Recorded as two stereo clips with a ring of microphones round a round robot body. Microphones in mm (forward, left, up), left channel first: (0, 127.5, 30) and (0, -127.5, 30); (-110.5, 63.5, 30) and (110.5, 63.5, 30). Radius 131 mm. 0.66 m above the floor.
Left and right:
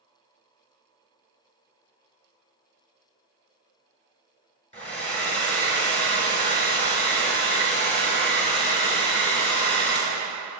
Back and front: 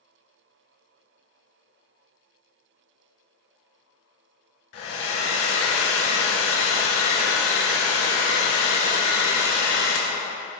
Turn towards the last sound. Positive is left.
turn(degrees=155)